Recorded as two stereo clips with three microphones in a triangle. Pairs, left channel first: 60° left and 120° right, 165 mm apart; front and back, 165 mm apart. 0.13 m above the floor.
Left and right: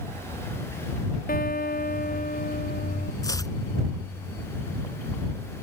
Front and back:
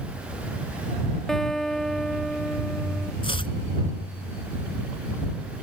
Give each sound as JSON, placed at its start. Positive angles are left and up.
{"t": 1.3, "sound": "a guitar", "azimuth_deg": 90}
{"t": 3.2, "sound": "chopping", "azimuth_deg": 10}